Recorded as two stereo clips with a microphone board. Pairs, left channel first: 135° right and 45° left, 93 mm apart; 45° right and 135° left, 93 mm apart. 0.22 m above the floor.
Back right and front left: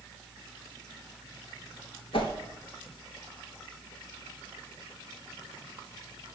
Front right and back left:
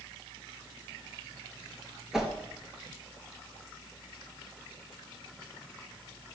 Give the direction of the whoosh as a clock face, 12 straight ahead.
5 o'clock.